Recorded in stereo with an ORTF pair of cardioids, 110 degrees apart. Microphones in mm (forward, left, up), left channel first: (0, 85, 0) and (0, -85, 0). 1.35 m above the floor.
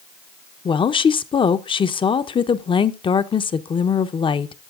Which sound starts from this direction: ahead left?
A woman speaking, at 0.7 s.